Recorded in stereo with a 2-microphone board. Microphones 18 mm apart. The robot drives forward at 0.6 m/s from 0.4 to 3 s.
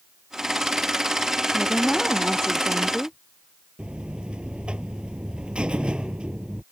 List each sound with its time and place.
1.5 s a woman speaking: 30° left (ahead or behind)
3.8 s a buzzer: 60° right (ahead or behind)